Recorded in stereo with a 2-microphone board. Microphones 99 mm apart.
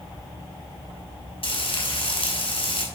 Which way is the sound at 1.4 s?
70° left (ahead or behind).